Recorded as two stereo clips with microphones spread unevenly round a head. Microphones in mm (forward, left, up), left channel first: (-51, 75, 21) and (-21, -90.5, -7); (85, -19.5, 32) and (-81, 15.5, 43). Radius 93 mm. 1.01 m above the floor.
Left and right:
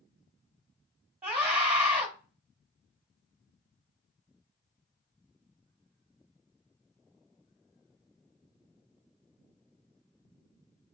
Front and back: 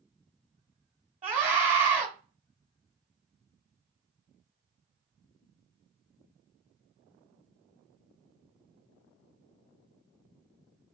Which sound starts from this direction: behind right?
A scream, at 1.2 s.